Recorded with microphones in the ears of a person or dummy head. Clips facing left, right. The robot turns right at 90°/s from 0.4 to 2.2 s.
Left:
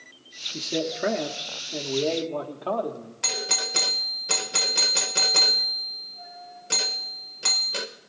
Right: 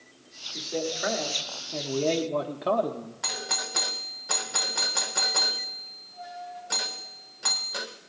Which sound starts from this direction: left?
A doorbell, at 3.2 s.